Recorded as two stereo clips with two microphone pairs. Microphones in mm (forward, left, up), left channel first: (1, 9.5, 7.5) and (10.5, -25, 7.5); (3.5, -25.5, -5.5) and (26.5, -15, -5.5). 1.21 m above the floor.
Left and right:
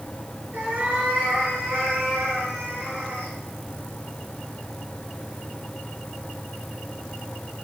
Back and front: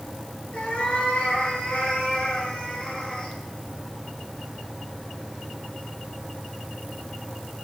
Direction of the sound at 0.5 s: 115° right.